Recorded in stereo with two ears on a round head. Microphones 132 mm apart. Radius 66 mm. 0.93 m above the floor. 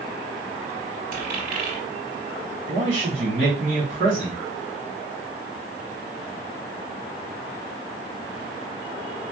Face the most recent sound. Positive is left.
turn(degrees=-45)  # may be behind; listen again after turning